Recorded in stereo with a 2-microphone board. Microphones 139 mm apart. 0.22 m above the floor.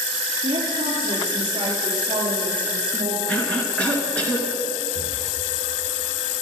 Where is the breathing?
40° left (ahead or behind), 4.5 m.